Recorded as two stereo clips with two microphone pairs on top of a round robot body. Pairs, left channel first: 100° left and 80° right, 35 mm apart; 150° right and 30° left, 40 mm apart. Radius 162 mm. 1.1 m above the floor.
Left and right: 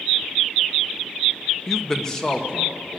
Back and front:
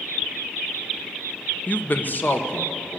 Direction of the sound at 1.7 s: 175° right.